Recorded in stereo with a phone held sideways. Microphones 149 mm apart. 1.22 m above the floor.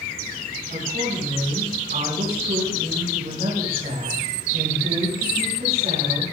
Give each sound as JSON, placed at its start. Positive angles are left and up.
{"t": 0.7, "sound": "a woman speaking", "side_deg": -80, "distance_m": 7.0}